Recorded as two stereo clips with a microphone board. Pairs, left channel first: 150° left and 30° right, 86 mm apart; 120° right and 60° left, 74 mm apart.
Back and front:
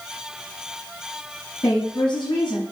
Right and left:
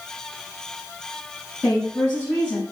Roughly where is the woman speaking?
Behind.